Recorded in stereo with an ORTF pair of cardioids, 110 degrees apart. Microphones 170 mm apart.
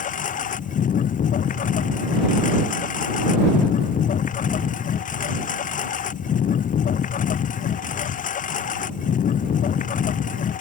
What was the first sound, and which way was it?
A lawn mower, 50° left.